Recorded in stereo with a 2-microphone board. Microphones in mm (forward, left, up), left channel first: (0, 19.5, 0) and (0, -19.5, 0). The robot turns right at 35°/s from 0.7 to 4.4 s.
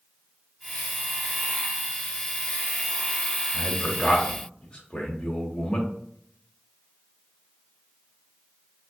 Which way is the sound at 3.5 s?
40° left (ahead or behind).